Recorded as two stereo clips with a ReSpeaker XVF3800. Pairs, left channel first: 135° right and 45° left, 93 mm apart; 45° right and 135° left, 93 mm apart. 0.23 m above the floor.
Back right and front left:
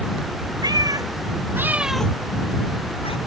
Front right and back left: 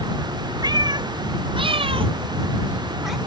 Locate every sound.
0.6 s a cat meowing: 90° left; by 3.2 s 135° right